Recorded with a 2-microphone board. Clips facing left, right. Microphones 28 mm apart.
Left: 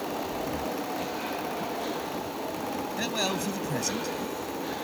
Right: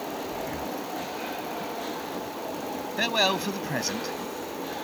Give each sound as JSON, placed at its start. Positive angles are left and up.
{"t": 0.3, "sound": "breathing", "side_deg": -20}
{"t": 3.0, "sound": "a man speaking", "side_deg": -30}